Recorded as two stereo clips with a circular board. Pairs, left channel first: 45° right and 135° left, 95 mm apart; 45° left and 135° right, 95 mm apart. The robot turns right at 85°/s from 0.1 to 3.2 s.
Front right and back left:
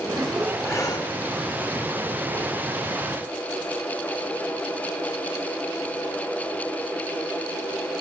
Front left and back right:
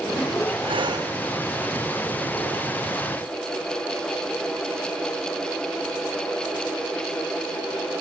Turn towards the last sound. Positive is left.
turn(degrees=105)